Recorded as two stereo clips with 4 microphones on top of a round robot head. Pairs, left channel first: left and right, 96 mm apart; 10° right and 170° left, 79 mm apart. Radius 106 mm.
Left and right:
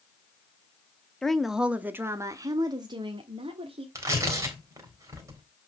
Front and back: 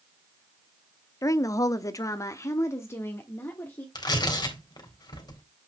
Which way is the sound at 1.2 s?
10° left.